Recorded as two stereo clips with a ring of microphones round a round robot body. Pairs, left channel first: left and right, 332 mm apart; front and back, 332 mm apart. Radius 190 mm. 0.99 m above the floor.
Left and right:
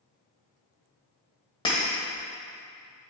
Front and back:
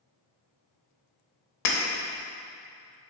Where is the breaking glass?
15° left, 1.0 m.